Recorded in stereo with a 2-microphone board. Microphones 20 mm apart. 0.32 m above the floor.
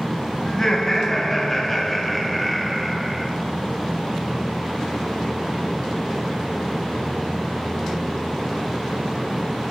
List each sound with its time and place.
0.5 s laughter: 30° left (ahead or behind), 2.5 m; by 3.3 s 10° right (ahead or behind), 2 m